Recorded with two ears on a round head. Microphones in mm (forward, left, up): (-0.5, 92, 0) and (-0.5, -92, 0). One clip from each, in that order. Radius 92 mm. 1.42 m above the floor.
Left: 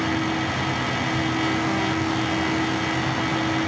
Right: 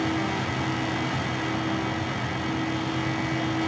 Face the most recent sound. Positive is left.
No sound to turn to.